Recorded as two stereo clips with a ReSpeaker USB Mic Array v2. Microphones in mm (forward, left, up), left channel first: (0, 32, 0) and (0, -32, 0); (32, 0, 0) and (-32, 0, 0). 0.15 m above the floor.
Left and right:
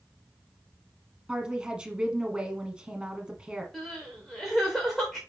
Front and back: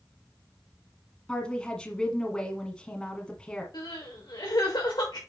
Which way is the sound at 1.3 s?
45° right.